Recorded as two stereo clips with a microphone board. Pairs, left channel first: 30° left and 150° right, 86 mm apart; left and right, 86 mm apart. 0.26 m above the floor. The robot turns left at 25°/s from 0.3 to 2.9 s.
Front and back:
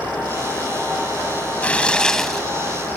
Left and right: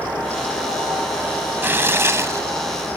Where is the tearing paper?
35° right; by 3.0 s 70° right.